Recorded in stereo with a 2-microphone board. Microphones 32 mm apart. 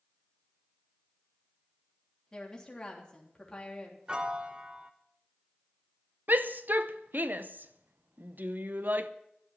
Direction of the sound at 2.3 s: 20° left (ahead or behind).